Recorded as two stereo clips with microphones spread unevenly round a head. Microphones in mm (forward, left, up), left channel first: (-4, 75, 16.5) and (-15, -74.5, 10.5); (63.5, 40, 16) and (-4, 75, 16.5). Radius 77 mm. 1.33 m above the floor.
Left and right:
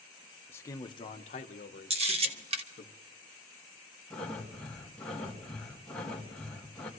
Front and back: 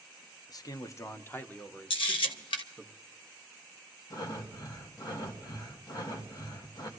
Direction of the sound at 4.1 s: Straight ahead.